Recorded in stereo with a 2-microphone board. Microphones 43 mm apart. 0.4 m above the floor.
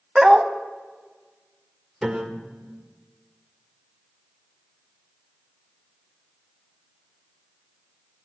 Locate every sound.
0.1 s a dog barking: 15° right (ahead or behind), 0.8 m
2.0 s a piano: 20° right (ahead or behind), 1.2 m